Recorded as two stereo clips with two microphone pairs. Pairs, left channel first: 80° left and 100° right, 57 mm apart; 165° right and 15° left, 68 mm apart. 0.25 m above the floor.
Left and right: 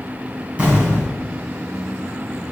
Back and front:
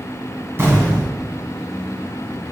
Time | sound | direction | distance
0.6 | an explosion | 35° right | 2 m